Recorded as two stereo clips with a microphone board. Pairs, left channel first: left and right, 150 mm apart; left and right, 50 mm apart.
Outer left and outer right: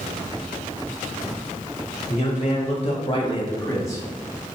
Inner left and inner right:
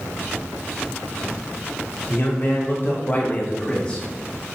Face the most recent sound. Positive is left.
turn(degrees=20)  # may be behind; listen again after turning